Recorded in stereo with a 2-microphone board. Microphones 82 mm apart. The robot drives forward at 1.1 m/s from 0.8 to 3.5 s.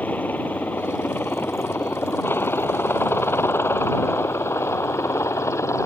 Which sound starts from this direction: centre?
A helicopter, at 0.0 s.